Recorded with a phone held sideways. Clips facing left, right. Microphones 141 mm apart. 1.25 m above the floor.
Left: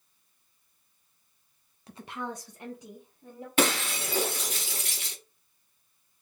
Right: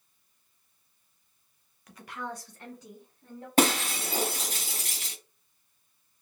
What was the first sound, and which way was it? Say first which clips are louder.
A woman speaking: left 2 dB; 30° left (ahead or behind).